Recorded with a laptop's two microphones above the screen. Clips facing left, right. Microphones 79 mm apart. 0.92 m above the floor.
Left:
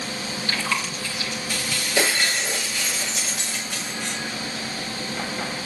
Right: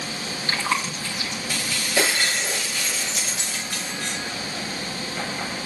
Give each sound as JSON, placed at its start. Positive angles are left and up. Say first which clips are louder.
{"t": 0.5, "sound": "chewing", "louder": "right 2 dB", "side_deg": -30, "distance_m": 1.7}
{"t": 2.0, "sound": "breaking glass", "louder": "even", "side_deg": 0, "distance_m": 5.5}